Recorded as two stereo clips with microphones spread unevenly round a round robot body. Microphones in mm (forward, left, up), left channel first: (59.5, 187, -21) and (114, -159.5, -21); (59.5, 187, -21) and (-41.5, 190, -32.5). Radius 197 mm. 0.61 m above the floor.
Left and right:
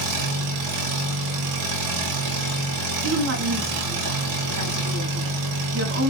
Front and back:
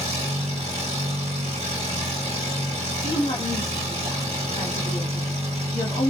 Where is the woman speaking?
45° right, 1.5 m.